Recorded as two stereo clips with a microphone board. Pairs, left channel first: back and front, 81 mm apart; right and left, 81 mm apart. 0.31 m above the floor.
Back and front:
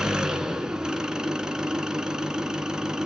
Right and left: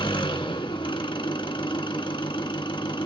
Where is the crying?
No crying in this recording.